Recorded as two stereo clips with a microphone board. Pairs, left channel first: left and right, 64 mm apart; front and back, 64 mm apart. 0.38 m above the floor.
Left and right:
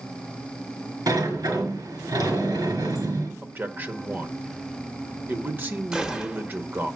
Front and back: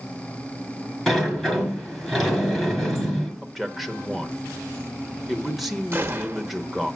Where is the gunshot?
155° right, 0.9 m.